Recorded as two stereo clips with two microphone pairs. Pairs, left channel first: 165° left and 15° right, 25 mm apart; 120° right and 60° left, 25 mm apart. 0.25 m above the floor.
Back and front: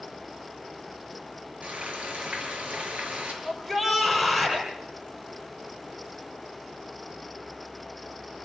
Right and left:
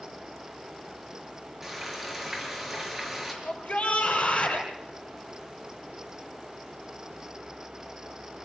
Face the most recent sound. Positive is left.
turn(degrees=-100)